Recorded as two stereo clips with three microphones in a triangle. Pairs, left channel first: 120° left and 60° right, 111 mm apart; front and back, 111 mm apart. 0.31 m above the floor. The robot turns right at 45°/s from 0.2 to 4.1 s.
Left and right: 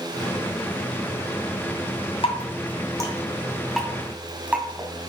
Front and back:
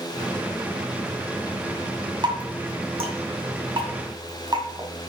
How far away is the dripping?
About 2 m.